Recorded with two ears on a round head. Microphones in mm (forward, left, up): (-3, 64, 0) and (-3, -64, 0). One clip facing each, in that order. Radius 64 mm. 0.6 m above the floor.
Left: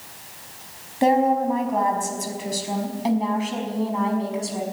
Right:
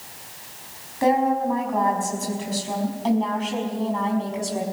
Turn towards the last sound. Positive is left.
turn(degrees=5)  # may be behind; listen again after turning